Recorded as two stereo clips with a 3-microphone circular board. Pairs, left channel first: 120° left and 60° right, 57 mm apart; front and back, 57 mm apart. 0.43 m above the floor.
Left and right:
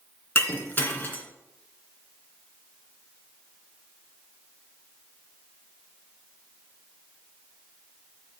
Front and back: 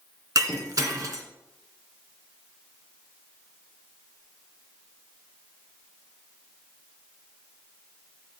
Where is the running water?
I don't hear running water.